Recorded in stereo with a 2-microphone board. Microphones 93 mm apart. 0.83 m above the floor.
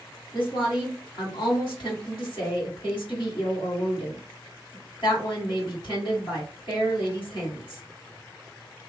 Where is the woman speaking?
60° left (ahead or behind), 2 m.